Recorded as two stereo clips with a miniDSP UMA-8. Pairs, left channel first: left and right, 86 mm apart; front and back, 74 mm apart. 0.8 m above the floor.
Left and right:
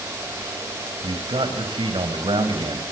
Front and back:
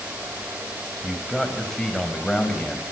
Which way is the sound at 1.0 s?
90° right.